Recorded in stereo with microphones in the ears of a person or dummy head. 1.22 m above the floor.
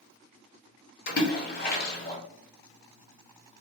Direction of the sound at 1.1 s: 50° left (ahead or behind).